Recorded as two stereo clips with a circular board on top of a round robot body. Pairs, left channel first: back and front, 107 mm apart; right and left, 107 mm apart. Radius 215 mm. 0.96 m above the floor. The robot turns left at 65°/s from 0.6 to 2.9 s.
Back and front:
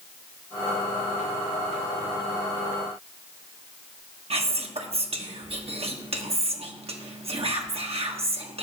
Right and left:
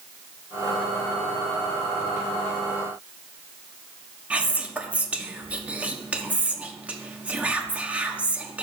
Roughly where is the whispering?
Ahead.